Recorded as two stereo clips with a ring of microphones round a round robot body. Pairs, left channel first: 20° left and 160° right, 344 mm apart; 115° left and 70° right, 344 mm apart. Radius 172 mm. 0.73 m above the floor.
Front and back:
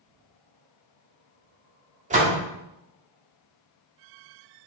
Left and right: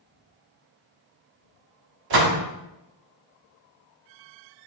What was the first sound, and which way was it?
A door slam, 90° right.